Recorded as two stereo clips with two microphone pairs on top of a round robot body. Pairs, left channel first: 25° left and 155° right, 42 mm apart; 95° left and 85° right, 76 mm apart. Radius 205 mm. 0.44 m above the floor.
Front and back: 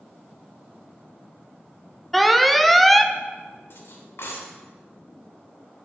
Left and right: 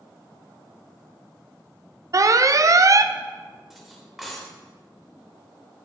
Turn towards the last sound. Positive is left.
turn(degrees=0)